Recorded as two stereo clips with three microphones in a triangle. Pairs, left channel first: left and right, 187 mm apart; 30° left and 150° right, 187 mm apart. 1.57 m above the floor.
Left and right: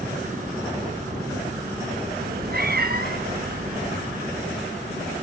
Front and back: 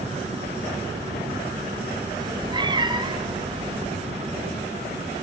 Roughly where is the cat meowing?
Right.